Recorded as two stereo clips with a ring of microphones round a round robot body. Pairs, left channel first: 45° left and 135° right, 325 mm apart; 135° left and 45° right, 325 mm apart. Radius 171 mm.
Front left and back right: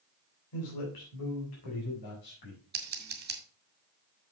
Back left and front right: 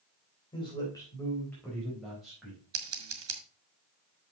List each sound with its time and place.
0.5 s a man speaking: 60° left, 3 m; by 2.6 s 40° left, 4.5 m
2.7 s scissors: 80° right, 1.9 m